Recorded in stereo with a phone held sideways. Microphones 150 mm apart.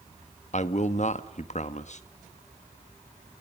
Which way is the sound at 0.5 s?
50° left (ahead or behind).